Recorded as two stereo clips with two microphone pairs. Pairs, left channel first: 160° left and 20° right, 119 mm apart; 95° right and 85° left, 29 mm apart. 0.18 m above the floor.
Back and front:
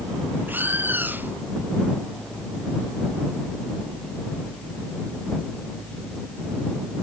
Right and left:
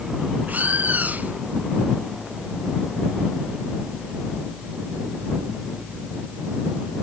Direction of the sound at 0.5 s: 55° left.